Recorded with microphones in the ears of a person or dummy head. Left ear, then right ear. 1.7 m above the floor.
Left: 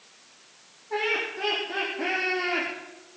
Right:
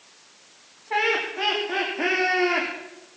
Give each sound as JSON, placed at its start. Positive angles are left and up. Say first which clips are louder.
{"t": 0.9, "sound": "laughter", "louder": "right 4 dB", "side_deg": -75, "distance_m": 3.5}